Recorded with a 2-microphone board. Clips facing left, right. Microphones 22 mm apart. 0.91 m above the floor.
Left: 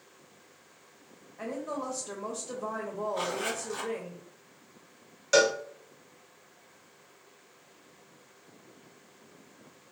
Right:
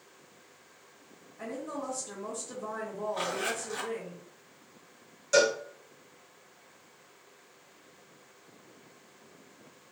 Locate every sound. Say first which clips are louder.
1.4 s a woman speaking: left 2 dB; 40° left (ahead or behind), 0.9 m
3.1 s a zipper: right 1 dB; 5° right (ahead or behind), 1.5 m
5.3 s a cowbell: left 1 dB; 35° left (ahead or behind), 0.7 m